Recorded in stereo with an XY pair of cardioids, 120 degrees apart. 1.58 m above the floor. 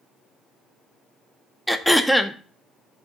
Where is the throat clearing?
5° left, 0.5 m.